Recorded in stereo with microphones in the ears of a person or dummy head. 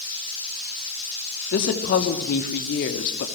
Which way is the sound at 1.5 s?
55° left (ahead or behind).